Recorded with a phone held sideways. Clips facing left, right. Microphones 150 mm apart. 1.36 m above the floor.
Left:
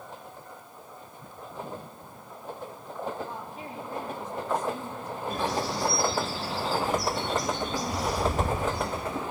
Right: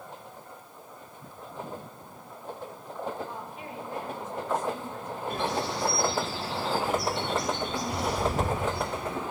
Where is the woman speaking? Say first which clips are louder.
Left 1 dB; 35° left (ahead or behind), 3.5 m.